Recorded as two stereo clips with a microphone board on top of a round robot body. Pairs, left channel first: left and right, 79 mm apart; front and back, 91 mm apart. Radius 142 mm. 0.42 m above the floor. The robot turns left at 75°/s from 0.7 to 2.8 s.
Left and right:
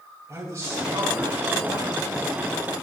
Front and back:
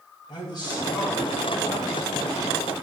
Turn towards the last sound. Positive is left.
turn(degrees=165)